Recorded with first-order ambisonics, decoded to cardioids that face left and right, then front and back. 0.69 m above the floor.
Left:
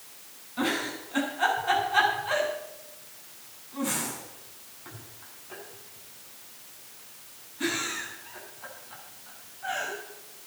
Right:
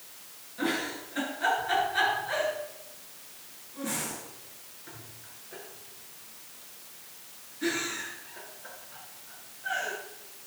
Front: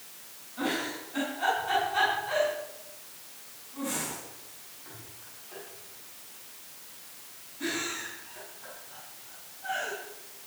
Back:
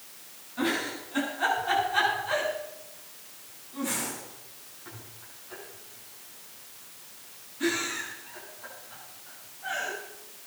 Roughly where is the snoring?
No snoring in this recording.